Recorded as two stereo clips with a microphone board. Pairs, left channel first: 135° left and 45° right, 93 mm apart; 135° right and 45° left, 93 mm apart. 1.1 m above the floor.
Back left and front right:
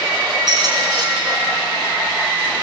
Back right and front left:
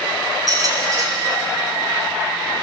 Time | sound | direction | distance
0.5 | a squeak | 5° right | 4 m